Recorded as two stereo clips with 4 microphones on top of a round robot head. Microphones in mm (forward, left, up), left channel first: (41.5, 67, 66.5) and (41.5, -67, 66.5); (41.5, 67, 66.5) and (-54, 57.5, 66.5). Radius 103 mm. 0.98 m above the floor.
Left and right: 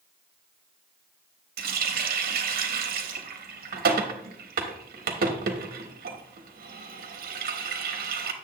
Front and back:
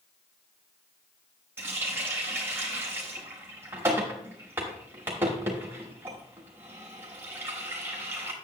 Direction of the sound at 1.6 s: 100° right.